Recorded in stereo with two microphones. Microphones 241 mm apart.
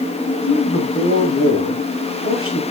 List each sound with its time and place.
0.4 s a man speaking: 65° left (ahead or behind), 8 m